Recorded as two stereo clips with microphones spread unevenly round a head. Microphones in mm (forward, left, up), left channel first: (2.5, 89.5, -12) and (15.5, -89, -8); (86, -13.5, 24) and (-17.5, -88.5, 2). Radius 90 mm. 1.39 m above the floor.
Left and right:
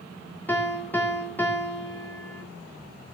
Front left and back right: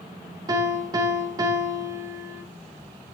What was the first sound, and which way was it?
A piano, 170° left.